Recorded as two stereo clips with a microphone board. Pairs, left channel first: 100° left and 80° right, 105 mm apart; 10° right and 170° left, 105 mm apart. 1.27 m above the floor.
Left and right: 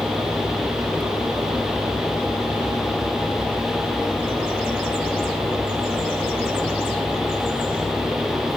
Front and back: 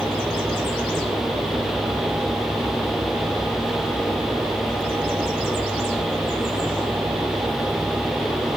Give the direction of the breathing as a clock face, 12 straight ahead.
No breathing in this recording.